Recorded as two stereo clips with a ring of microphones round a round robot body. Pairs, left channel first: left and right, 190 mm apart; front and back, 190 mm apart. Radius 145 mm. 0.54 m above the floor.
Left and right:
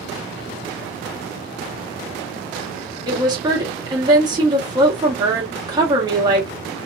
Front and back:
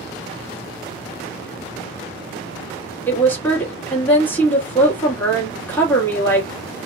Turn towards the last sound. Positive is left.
turn(degrees=-65)